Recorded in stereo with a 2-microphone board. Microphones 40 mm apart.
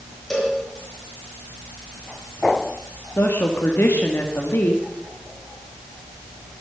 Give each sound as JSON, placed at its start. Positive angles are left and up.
{"t": 0.3, "sound": "a cowbell", "side_deg": 5, "distance_m": 5.5}
{"t": 3.2, "sound": "a woman speaking", "side_deg": 85, "distance_m": 1.9}